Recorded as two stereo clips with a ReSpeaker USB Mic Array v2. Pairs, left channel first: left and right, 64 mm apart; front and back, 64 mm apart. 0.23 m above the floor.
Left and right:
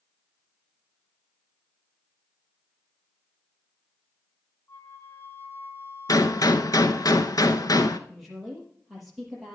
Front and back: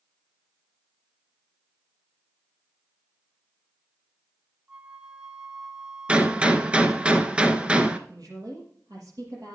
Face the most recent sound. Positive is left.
turn(degrees=180)